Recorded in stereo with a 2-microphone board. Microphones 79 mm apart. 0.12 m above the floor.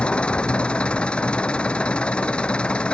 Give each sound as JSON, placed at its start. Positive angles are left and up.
{"t": 0.0, "sound": "an engine running", "side_deg": 15}